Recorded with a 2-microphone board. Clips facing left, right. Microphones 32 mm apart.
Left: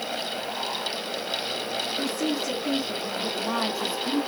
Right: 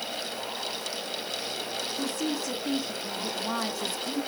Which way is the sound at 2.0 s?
5° left (ahead or behind).